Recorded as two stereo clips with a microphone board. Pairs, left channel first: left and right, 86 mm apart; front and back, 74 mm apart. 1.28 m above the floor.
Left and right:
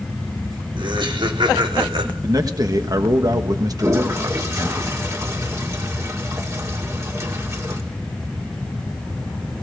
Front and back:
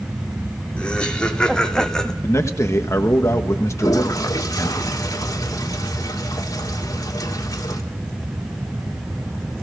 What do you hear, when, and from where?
0.8 s laughter: 75° right, 4 m; by 2.1 s 85° right, 3 m
2.2 s a man speaking: 50° right, 1.4 m
3.8 s a toilet flushing: 35° right, 2.5 m